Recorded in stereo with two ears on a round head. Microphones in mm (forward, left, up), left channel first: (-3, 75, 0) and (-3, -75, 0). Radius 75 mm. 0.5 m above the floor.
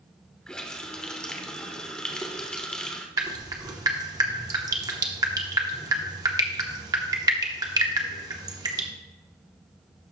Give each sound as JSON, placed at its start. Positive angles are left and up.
{"t": 0.5, "sound": "a running tap", "side_deg": 5, "distance_m": 0.7}
{"t": 3.2, "sound": "dripping", "side_deg": -20, "distance_m": 0.9}